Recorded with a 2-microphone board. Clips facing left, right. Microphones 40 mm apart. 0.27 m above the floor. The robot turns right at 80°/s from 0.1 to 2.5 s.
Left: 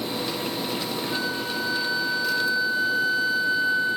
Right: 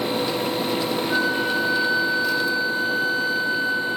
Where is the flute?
110° right, 1.1 m; by 4.0 s straight ahead, 1.1 m.